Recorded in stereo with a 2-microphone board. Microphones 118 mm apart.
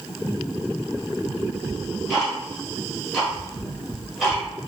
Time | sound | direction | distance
1.7 | ticking | centre (ahead or behind) | 1.2 m